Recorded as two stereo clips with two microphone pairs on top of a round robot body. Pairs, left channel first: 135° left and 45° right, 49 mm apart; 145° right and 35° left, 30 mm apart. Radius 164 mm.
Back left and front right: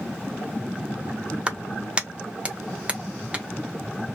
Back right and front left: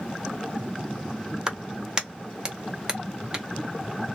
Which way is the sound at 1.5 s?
10° right.